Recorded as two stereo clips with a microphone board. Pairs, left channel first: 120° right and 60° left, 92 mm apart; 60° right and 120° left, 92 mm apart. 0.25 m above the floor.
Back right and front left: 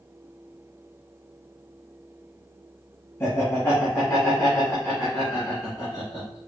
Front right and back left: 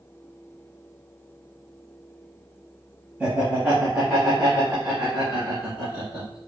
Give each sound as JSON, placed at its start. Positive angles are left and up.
{"t": 3.2, "sound": "laughter", "azimuth_deg": -175, "distance_m": 1.3}